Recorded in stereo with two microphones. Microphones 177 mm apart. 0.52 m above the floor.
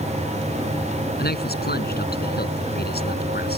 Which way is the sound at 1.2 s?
65° left (ahead or behind).